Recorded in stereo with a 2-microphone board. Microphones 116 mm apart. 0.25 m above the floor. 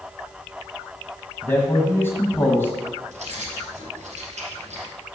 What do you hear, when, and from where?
1.4 s a man speaking: 20° left (ahead or behind), 1.3 m
3.1 s keys jangling: 75° right (ahead or behind), 3.5 m